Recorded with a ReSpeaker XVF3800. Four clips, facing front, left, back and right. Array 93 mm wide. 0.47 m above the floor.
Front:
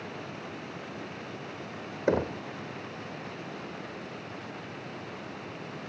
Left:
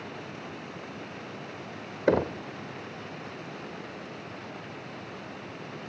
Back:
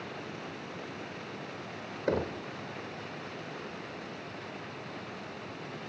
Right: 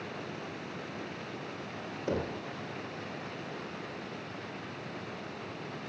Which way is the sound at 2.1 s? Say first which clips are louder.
Left 9 dB, front 4 dB; 75° left.